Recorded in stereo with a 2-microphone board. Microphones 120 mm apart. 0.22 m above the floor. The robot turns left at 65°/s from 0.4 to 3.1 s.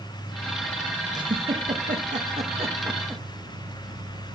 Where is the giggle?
35° right (ahead or behind), 2.5 m; by 3.2 s 20° right (ahead or behind), 2.5 m.